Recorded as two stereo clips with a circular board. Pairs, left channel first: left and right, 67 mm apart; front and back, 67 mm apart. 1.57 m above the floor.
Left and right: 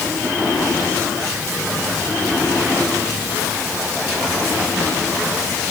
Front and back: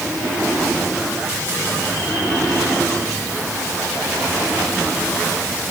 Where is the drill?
No drill in this recording.